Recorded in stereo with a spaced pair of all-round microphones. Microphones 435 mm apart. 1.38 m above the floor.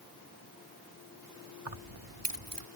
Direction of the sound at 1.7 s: 80° right.